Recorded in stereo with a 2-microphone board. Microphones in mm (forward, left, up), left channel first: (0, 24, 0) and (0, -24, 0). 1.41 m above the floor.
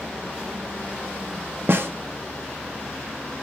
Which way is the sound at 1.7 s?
55° right (ahead or behind).